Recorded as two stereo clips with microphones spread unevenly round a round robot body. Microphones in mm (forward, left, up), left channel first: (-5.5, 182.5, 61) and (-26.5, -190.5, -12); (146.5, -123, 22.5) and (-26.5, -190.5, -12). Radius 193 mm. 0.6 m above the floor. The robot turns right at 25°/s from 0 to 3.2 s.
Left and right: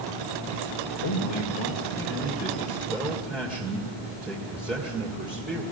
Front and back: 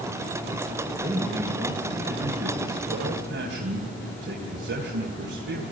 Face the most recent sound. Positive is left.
turn(degrees=180)